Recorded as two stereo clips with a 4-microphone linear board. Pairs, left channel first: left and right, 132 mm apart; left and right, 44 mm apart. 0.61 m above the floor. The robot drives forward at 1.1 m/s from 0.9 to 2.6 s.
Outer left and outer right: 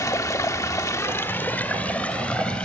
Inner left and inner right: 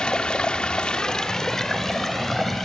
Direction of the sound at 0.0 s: 25° left (ahead or behind).